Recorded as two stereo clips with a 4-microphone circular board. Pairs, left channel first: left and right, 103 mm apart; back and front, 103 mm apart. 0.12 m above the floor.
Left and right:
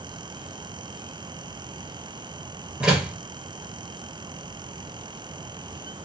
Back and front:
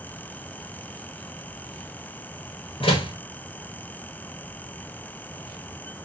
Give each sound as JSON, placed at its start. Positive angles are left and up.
{"t": 2.8, "sound": "a door slam", "azimuth_deg": -170, "distance_m": 1.6}